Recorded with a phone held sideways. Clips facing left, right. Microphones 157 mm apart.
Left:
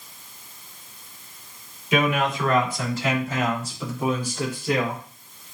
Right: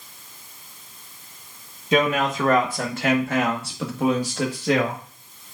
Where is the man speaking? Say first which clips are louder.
Right 2 dB; 35° right (ahead or behind), 2.0 m; by 5.0 s 80° right, 2 m.